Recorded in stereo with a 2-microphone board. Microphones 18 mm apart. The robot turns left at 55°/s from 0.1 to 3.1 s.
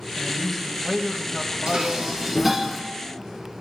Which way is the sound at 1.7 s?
125° right.